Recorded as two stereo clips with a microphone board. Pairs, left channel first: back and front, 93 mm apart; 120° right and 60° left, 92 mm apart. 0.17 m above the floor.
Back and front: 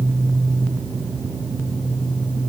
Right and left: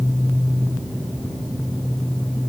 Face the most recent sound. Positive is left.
No sound to turn to.